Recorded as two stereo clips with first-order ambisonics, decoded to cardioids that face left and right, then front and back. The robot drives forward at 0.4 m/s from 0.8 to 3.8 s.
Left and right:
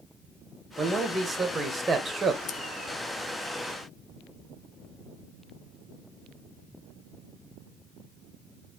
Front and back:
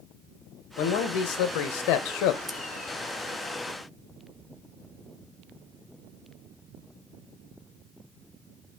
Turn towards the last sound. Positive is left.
turn(degrees=145)